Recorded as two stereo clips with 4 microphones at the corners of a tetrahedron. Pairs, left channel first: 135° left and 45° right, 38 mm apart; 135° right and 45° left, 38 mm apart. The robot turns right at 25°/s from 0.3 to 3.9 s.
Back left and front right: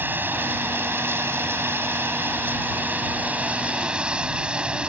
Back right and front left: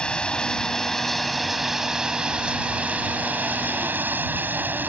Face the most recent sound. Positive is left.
turn(degrees=15)